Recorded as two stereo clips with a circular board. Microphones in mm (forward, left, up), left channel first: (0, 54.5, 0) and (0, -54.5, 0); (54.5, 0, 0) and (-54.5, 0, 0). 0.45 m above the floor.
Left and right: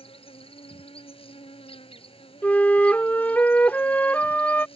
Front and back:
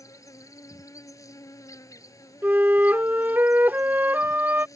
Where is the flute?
140° left.